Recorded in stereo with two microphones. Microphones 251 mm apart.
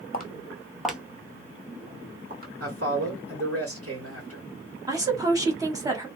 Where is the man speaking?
70° right (ahead or behind), 1.6 m.